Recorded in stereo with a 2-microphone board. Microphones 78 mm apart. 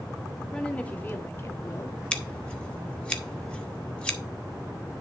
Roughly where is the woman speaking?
Centre.